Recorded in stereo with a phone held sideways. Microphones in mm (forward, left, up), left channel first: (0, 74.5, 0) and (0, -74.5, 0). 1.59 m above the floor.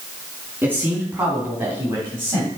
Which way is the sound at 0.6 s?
20° right (ahead or behind).